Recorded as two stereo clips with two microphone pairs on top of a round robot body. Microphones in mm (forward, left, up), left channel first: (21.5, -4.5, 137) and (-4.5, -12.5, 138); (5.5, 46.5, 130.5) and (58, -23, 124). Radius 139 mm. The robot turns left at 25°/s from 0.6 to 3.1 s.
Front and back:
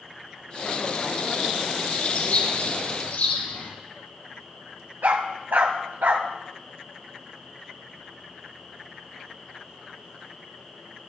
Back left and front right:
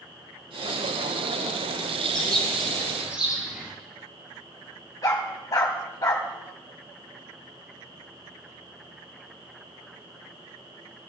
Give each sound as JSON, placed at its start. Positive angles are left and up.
{"t": 2.1, "sound": "a bird", "azimuth_deg": 50, "distance_m": 4.5}
{"t": 5.0, "sound": "a dog barking", "azimuth_deg": -175, "distance_m": 1.1}